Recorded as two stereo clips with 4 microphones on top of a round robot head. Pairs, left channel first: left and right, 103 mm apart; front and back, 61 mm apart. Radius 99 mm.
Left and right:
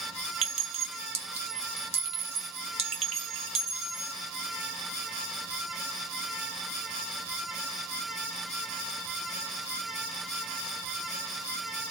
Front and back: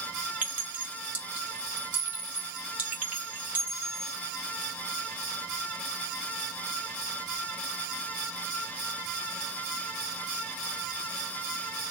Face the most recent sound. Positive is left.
turn(degrees=-110)